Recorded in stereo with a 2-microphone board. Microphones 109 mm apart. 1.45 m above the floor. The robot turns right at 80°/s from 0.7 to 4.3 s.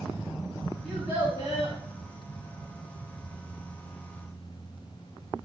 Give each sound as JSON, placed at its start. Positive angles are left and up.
{"t": 0.8, "sound": "a child speaking", "azimuth_deg": 165, "distance_m": 5.0}